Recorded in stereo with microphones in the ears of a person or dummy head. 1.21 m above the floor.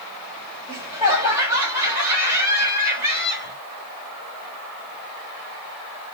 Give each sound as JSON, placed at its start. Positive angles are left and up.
{"t": 0.7, "sound": "laughter", "side_deg": -15, "distance_m": 1.9}